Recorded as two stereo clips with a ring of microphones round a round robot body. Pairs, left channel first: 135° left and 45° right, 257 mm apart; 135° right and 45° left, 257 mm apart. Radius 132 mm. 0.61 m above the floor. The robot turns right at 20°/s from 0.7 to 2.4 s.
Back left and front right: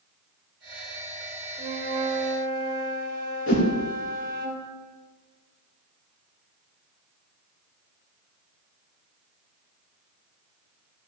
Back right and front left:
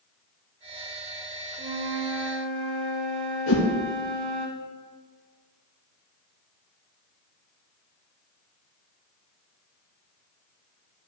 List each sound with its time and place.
1.6 s a flute: 15° left, 4.5 m; by 4.5 s 30° left, 4.5 m
3.5 s a whoosh: straight behind, 2.5 m